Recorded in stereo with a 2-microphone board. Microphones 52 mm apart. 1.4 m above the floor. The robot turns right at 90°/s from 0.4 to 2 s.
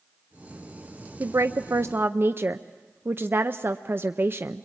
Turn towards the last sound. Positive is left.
turn(degrees=-50)